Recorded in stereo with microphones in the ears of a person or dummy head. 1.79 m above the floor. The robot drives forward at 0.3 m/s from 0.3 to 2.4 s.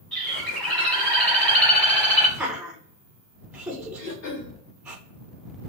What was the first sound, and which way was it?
A bird, 5° left (ahead or behind).